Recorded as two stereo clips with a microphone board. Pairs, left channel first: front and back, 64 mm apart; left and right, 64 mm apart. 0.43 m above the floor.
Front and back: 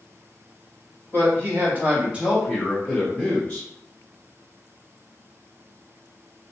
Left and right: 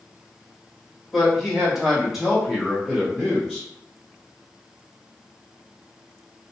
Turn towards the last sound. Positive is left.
turn(degrees=-10)